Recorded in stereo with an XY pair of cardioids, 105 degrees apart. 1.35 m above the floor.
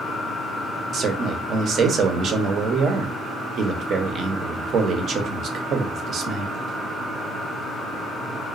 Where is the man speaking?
60° right, 0.7 m.